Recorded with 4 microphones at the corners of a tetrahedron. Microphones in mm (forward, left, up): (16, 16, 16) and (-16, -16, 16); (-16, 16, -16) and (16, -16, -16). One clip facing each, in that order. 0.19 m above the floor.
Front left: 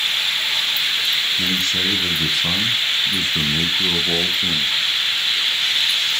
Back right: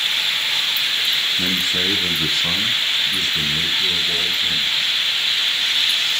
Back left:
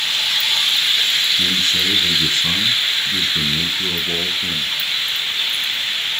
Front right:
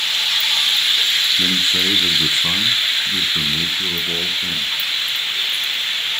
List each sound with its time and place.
1.4 s a man speaking: 90° right, 1.1 m; by 4.7 s 50° left, 1.5 m